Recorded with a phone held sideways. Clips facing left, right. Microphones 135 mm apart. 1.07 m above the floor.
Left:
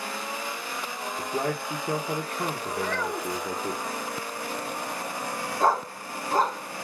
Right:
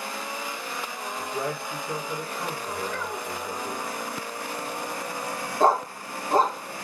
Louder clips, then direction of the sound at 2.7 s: Left 2 dB; 85° left.